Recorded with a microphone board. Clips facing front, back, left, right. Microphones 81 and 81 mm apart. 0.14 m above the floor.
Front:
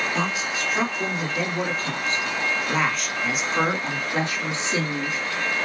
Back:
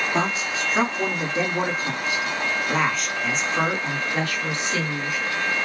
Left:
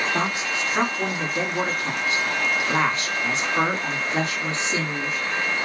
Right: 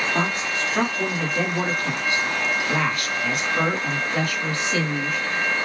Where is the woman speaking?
160° left, 2.5 m; by 5.3 s 35° left, 2 m.